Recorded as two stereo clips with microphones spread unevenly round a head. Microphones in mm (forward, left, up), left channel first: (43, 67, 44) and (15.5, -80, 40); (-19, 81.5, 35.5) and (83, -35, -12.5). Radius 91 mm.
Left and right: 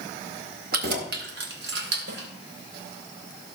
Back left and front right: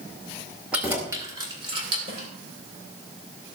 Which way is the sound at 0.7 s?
135° right.